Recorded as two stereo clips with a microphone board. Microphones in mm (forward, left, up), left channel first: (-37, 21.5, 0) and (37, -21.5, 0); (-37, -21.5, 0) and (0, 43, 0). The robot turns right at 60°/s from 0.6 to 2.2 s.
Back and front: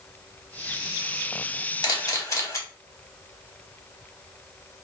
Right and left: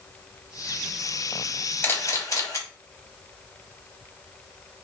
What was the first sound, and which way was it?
A camera shutter, 175° left.